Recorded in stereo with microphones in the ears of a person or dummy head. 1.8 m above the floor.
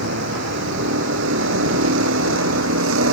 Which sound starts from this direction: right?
A vehicle, at 0.0 s.